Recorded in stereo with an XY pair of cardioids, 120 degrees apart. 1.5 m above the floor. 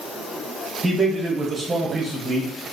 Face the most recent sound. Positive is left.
turn(degrees=-30)